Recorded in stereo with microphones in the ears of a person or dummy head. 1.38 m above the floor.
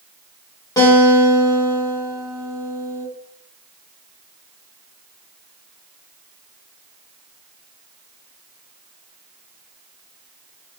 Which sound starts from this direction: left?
A guitar, at 0.8 s.